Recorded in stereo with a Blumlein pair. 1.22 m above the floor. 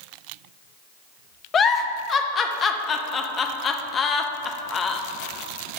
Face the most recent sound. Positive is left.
turn(degrees=25)